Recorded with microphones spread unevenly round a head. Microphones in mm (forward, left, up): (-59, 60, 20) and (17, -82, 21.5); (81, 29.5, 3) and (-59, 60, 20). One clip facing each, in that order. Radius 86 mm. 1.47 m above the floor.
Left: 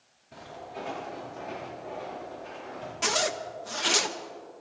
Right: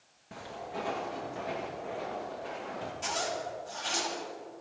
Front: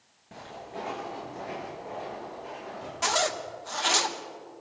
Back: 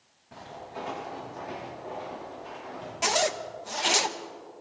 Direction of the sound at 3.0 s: 90° left.